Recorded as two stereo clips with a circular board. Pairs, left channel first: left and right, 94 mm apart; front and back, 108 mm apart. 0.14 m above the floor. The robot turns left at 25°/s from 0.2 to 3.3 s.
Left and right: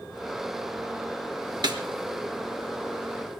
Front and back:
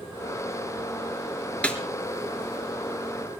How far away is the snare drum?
About 1.8 m.